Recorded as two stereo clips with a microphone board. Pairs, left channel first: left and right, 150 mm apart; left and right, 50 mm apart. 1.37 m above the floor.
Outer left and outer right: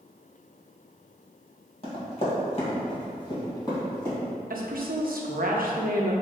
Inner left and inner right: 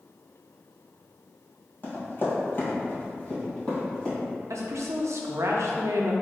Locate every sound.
1.8 s running footsteps: 40° left (ahead or behind), 2.0 m; by 4.2 s 15° left (ahead or behind), 3 m
4.5 s a woman speaking: 70° right (ahead or behind), 0.6 m